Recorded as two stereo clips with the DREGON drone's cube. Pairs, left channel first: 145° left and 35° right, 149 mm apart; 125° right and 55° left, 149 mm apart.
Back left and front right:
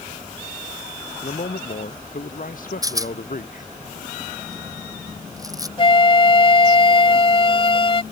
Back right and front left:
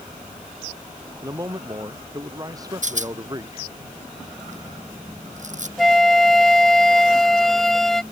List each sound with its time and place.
1.2 s a man speaking: 125° left; by 3.7 s 120° left
2.8 s a rattle: 30° left
5.8 s a flute: 150° left